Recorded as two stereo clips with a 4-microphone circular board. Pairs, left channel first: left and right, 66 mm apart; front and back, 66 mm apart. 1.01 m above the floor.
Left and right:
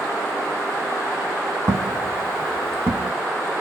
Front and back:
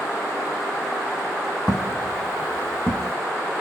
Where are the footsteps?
85° right, 1.8 m; by 3.1 s 15° right, 1.2 m.